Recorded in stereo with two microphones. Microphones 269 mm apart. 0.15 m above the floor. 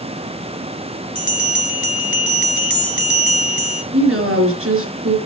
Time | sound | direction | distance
1.1 | a bell | 45° left (ahead or behind) | 0.6 m
3.9 | a woman speaking | 50° right (ahead or behind) | 2.5 m